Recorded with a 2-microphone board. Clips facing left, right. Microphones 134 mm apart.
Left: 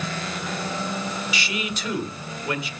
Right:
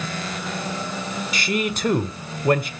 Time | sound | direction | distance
1.3 | a man speaking | 50° right (ahead or behind) | 1.2 m